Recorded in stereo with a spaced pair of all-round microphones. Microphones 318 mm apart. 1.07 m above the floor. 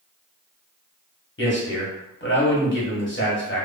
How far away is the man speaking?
About 1.1 m.